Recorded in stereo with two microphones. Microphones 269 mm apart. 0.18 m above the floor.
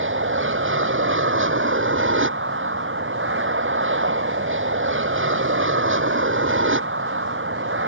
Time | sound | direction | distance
0.0 | an aircraft | 45° right (ahead or behind) | ?